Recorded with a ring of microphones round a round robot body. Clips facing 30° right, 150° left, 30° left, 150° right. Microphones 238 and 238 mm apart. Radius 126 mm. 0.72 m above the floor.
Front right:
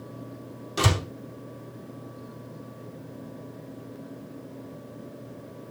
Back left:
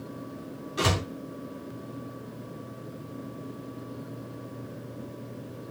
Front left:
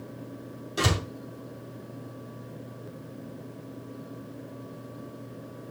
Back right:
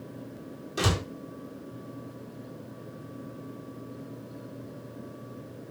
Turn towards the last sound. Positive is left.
turn(degrees=-60)